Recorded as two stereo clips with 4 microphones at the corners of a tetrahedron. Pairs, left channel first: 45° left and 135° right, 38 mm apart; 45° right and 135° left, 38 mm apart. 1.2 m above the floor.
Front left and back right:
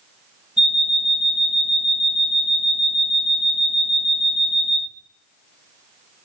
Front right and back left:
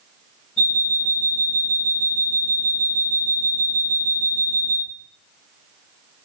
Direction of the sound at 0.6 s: 75° right.